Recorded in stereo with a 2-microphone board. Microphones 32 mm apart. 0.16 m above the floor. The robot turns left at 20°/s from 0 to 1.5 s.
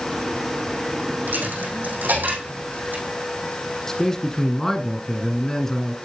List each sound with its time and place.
1.3 s a dropped coin: 75° right (ahead or behind), 4 m; by 3.0 s 70° right (ahead or behind), 4 m
3.9 s a man speaking: 15° left (ahead or behind), 1.6 m